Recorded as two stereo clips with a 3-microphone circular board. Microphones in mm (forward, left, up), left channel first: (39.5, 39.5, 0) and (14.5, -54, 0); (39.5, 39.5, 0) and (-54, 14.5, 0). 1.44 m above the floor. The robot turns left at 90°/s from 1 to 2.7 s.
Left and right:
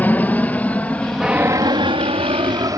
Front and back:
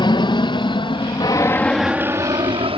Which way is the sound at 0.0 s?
5° left.